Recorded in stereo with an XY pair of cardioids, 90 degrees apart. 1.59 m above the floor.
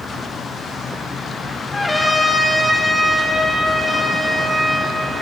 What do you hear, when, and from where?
1.7 s a trumpet: 10° left, 1.8 m